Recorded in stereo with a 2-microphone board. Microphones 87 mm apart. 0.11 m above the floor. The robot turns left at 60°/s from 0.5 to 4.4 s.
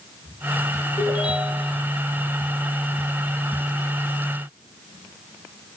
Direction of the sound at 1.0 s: 120° left.